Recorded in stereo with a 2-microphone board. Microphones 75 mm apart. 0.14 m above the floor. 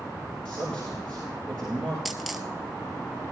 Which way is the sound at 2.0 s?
Centre (ahead or behind).